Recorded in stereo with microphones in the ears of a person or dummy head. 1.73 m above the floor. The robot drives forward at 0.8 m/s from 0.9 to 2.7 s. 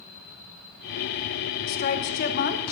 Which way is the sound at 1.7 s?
50° left (ahead or behind).